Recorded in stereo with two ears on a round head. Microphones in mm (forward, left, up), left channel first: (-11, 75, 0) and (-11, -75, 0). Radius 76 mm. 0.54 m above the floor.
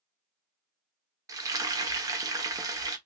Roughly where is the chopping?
I don't hear chopping.